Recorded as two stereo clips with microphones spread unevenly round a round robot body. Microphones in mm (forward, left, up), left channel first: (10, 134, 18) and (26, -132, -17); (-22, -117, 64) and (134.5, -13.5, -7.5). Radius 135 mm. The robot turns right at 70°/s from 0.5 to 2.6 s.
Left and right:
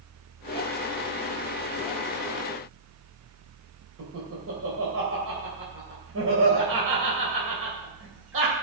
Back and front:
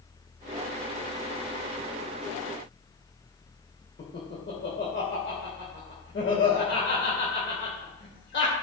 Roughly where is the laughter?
Behind right.